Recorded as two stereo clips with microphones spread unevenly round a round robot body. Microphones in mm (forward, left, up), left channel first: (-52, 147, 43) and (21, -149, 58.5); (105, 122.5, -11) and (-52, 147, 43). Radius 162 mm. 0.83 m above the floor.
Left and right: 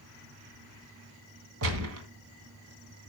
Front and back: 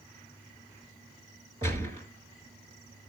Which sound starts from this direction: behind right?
A gunshot, at 1.6 s.